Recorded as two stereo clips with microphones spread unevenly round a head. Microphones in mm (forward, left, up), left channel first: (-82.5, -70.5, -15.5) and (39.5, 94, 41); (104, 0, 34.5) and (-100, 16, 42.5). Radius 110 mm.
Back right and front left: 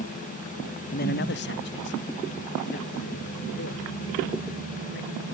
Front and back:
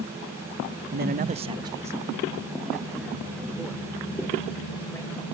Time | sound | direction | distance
0.9 | a man speaking | 155° right | ?